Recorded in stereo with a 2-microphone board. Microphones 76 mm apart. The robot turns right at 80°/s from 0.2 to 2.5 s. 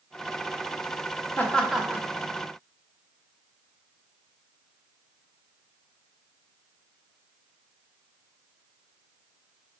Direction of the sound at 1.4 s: 25° left (ahead or behind).